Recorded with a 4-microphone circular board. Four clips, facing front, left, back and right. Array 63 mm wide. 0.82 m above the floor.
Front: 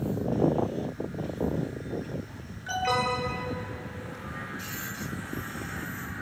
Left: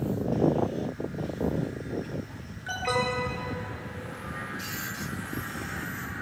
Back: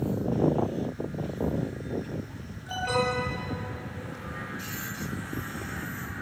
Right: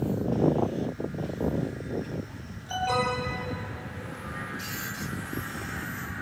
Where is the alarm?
60° left, 7.5 m.